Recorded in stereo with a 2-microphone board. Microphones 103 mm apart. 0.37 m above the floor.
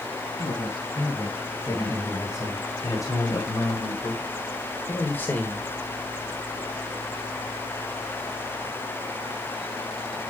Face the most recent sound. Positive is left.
turn(degrees=15)  # may be behind; listen again after turning